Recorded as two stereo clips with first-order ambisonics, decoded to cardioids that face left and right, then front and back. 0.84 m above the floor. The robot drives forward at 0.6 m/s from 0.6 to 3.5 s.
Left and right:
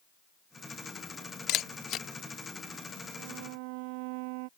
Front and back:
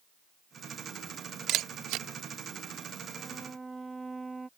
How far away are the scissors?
I don't hear scissors.